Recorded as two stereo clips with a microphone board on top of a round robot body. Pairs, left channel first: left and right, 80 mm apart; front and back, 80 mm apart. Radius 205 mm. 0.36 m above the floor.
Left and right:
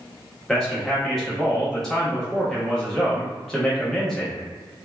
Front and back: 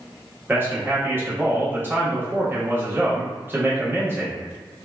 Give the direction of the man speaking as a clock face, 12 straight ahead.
6 o'clock.